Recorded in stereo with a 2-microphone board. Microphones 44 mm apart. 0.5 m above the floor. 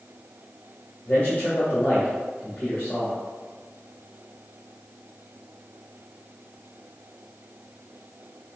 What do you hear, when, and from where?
1.1 s a man speaking: 35° left (ahead or behind), 1.9 m